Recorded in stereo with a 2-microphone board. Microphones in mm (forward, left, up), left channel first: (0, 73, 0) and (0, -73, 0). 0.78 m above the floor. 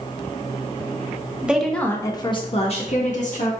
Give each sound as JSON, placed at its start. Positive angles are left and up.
{"t": 1.4, "sound": "a woman speaking", "side_deg": -10, "distance_m": 0.7}